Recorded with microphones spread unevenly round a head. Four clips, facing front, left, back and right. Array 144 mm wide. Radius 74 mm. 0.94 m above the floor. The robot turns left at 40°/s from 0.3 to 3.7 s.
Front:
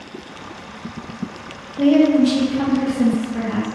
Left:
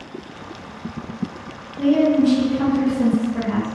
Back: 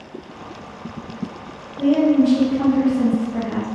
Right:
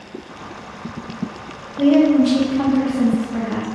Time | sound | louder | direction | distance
1.8 | a woman speaking | right 3 dB, front 2 dB | 40° right | 0.8 m